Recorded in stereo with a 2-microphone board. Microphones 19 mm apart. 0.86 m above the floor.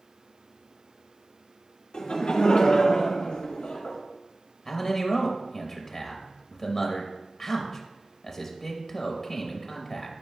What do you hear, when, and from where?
1.9 s laughter: 60° left (ahead or behind), 1.8 m; by 4.0 s 85° left, 3.5 m
4.7 s a man speaking: 25° left (ahead or behind), 0.9 m